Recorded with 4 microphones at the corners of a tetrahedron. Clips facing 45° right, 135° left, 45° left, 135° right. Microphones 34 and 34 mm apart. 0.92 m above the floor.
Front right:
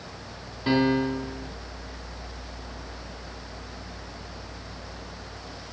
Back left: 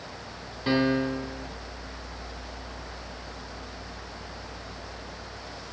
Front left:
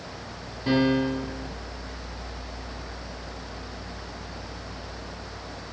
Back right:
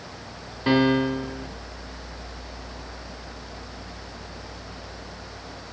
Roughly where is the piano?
Behind right.